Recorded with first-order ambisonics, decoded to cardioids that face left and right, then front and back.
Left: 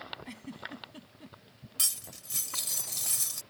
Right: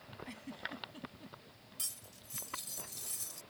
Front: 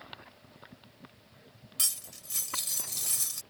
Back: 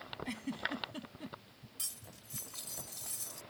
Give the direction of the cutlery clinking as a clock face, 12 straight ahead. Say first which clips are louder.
Left 12 dB, front 12 dB; 11 o'clock.